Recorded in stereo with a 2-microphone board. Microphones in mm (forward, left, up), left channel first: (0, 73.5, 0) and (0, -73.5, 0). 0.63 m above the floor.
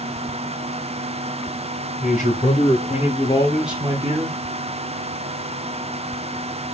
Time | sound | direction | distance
2.0 | a man speaking | 60° left (ahead or behind) | 2.5 m